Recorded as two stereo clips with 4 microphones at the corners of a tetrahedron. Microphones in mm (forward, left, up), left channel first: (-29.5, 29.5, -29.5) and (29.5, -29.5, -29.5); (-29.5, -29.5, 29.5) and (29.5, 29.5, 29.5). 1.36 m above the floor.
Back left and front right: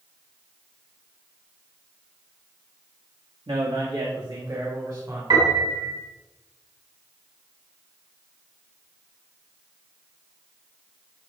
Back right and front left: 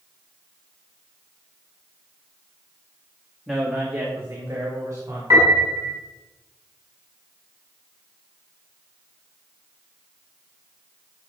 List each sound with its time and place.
3.5 s a man speaking: 45° right, 2.0 m; by 5.2 s 5° right, 4 m
5.3 s a piano: 10° right, 5.5 m